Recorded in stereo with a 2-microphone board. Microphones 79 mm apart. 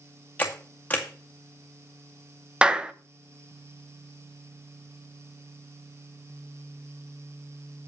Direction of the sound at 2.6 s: 10° right (ahead or behind).